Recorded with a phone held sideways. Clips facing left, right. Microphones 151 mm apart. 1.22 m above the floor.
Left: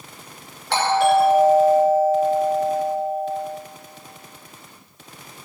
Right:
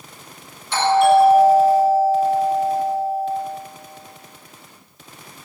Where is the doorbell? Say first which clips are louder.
Right 3 dB; 75° left (ahead or behind), 5.5 m.